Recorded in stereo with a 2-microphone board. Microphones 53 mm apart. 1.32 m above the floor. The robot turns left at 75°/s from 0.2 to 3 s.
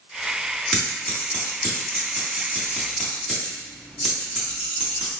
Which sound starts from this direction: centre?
Scissors, at 0.7 s.